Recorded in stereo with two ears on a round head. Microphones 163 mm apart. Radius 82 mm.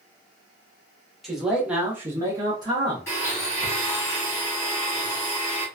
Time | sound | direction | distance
1.2 | a man speaking | centre (ahead or behind) | 1.2 m
3.1 | a blender | 15° left (ahead or behind) | 1.6 m